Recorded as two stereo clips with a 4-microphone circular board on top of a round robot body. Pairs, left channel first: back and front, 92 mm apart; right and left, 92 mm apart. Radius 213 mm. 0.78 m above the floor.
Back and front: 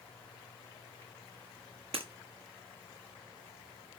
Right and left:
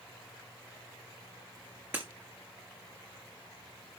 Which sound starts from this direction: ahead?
Breaking glass, at 1.9 s.